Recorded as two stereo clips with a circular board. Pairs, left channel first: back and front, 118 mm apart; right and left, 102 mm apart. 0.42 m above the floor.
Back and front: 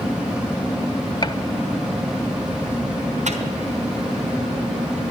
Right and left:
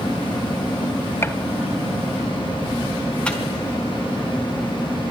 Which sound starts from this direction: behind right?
A gunshot, at 1.2 s.